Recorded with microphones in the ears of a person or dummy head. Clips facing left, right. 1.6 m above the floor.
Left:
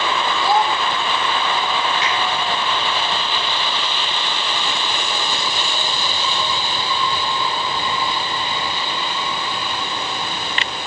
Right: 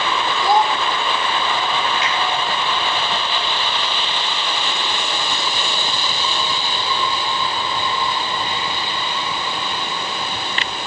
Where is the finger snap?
80° right, 3.5 m.